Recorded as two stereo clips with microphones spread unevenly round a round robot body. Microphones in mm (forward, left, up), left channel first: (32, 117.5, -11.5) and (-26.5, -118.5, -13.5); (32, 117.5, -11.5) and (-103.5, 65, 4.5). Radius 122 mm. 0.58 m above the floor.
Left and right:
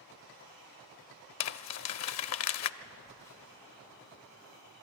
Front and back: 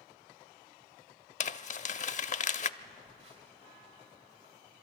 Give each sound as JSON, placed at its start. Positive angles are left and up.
{"t": 1.4, "sound": "crumpling", "azimuth_deg": 60, "distance_m": 0.5}
{"t": 2.8, "sound": "a phone buzzing", "azimuth_deg": 155, "distance_m": 3.0}